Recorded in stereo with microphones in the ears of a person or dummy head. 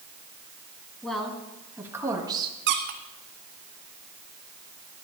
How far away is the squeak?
About 1.2 m.